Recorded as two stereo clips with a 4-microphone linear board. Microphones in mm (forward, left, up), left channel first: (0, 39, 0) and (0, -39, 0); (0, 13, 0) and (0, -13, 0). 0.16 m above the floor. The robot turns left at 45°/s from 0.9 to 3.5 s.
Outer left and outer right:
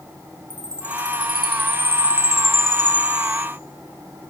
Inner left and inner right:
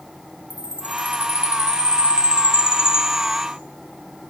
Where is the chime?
65° right, 3 m; by 3.5 s straight behind, 3 m.